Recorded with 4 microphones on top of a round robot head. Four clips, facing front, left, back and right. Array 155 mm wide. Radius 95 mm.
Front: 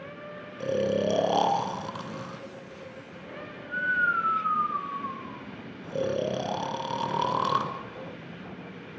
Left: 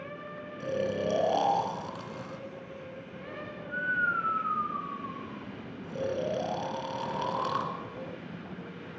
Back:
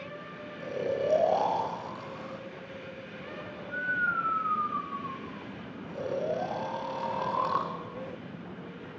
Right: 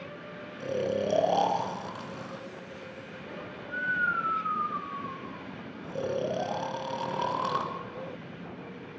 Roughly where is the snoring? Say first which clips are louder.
Right 1 dB, front 4 dB; ahead.